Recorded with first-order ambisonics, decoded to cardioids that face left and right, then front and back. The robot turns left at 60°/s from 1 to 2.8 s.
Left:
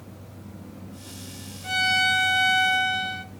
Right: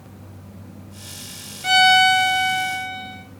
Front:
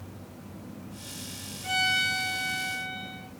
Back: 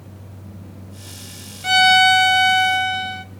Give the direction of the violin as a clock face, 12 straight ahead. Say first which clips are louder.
Right 8 dB, back 14 dB; 5 o'clock.